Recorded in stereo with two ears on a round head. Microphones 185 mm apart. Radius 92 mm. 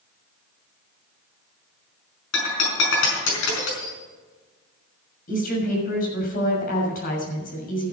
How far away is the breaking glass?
About 5 m.